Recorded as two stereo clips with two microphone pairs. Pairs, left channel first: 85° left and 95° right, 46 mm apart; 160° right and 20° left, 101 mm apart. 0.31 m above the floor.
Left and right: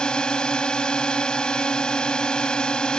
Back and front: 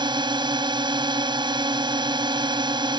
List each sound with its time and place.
0.0 s a drone: 20° left